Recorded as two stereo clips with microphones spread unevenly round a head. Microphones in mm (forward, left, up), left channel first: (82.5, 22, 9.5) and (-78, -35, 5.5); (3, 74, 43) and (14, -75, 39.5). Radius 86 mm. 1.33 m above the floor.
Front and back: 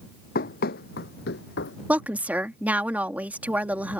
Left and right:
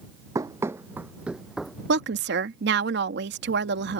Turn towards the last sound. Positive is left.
turn(degrees=-80)